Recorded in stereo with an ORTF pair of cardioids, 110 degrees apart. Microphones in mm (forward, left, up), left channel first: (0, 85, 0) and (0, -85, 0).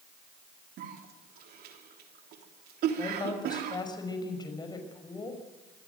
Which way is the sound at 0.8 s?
65° right.